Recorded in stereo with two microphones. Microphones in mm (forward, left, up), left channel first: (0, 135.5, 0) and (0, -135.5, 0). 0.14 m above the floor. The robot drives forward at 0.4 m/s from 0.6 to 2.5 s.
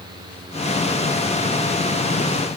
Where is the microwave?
I don't hear a microwave.